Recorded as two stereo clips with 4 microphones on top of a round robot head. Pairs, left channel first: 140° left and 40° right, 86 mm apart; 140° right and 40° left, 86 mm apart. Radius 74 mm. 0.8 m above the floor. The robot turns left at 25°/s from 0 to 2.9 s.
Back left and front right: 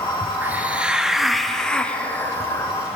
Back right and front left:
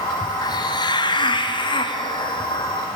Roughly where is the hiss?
Right.